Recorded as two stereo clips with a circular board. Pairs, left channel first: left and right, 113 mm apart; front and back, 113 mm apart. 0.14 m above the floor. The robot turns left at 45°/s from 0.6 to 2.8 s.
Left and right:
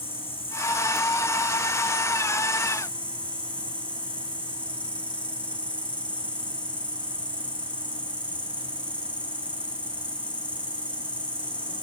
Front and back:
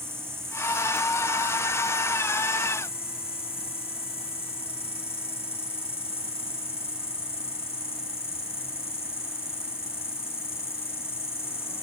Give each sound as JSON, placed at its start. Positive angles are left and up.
{"t": 0.0, "sound": "an insect", "azimuth_deg": 115, "distance_m": 1.8}